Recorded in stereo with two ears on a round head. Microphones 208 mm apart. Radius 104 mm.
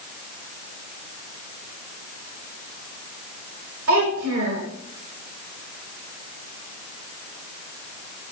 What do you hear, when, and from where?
3.9 s a child speaking: 75° right (ahead or behind), 5 m